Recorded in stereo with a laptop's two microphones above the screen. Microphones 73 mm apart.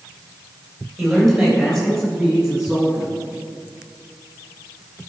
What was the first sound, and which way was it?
A man speaking, centre (ahead or behind).